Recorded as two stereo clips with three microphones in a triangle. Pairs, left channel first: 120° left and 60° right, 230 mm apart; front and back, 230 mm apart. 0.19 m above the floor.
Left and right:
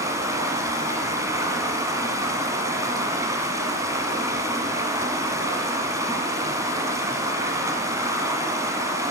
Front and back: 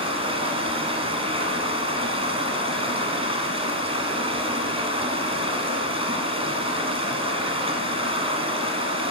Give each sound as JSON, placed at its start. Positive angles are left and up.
{"t": 0.0, "sound": "running water", "azimuth_deg": -130, "distance_m": 1.3}